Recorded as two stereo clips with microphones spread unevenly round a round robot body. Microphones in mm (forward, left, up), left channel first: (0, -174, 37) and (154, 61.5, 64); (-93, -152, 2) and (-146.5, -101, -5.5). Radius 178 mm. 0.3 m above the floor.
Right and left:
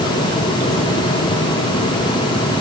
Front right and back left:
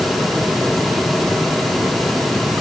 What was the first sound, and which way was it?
Only background noise.